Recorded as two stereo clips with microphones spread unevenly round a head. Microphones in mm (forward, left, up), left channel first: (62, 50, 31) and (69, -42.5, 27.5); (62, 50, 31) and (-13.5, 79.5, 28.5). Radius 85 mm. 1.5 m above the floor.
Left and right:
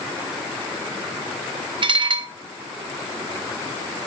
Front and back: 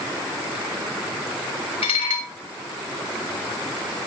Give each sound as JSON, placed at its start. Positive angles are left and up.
{"t": 1.8, "sound": "dishes clattering", "azimuth_deg": -60, "distance_m": 1.7}